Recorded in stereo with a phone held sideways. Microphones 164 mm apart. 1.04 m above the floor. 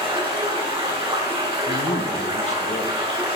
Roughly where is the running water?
Right.